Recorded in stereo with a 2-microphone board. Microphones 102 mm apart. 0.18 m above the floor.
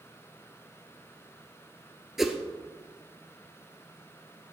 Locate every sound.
2.2 s a whoosh: 5° right (ahead or behind), 1.0 m